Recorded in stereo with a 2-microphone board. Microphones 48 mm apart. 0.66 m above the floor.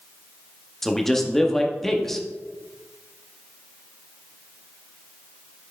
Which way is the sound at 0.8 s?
5° left (ahead or behind).